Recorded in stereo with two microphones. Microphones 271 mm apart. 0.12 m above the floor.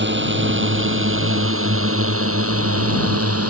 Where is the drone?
45° right (ahead or behind); by 3.5 s 65° right (ahead or behind).